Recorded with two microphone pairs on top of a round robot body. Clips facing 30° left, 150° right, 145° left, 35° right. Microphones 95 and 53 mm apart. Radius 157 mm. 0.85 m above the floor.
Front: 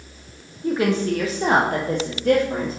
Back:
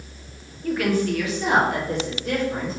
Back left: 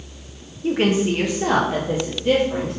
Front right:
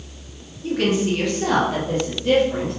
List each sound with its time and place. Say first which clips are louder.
0.6 s a woman speaking: front 2 dB, back left 2 dB; 100° left, 1.1 m; by 2.8 s 60° left, 2 m